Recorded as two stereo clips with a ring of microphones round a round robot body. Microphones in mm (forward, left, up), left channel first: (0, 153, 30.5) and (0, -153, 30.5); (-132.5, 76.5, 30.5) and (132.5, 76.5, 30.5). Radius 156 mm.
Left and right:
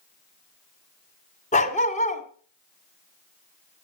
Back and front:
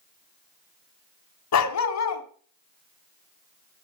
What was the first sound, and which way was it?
A dog barking, 160° left.